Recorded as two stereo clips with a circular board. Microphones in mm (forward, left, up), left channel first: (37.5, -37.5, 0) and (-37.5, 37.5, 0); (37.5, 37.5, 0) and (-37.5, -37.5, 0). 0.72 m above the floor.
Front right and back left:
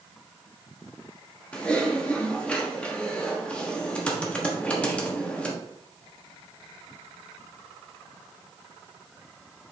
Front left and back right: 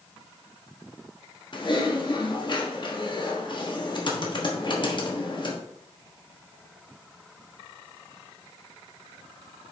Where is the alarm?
No alarm in this recording.